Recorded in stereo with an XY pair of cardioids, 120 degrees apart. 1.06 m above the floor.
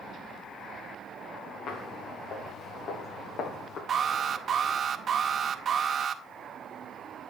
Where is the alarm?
40° right, 1.8 m.